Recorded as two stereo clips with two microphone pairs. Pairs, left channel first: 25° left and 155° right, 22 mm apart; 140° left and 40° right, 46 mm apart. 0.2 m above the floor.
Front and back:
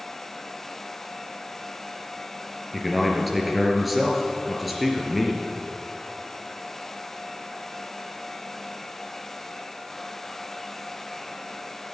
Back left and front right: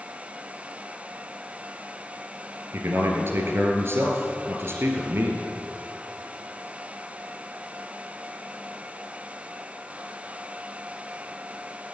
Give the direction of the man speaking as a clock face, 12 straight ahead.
2 o'clock.